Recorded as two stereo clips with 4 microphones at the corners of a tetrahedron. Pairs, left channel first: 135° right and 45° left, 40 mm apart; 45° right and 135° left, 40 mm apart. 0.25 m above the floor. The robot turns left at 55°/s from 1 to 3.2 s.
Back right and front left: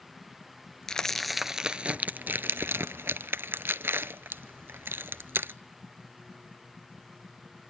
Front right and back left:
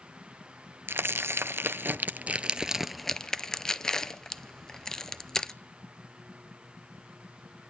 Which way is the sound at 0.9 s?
150° left.